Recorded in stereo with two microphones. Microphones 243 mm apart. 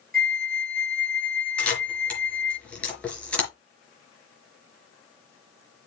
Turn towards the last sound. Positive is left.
turn(degrees=5)  # may be behind; listen again after turning